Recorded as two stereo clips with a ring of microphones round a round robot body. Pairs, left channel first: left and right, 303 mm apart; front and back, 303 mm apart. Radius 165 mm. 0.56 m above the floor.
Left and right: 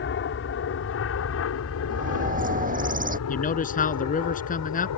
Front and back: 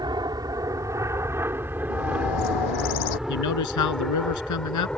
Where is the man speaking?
25° left.